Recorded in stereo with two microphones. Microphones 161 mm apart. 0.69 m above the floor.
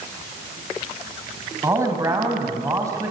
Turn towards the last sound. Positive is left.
turn(degrees=-20)  # may be behind; listen again after turning